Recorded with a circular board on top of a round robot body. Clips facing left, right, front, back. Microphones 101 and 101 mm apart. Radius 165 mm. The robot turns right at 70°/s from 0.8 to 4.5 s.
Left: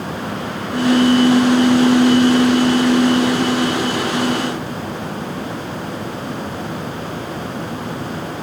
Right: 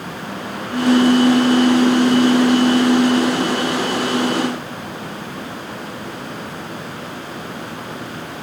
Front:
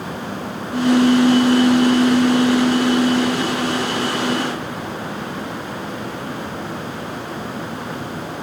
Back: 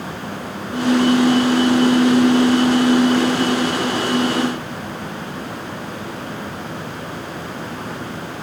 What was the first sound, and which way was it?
Only background noise.